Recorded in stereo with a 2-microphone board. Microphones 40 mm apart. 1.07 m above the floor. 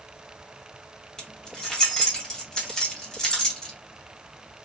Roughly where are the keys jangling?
Centre.